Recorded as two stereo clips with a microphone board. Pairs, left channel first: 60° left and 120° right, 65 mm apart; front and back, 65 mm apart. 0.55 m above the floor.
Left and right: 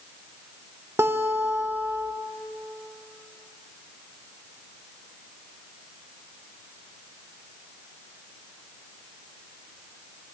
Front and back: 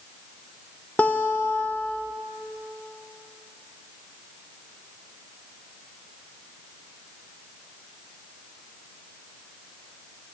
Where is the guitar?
70° right, 0.5 m.